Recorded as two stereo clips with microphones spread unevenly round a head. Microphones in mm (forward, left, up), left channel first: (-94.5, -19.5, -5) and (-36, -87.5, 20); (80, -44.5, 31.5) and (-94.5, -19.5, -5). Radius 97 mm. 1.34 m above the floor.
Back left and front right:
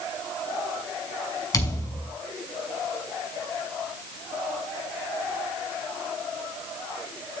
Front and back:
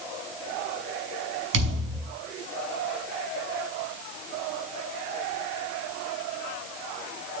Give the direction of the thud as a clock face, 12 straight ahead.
6 o'clock.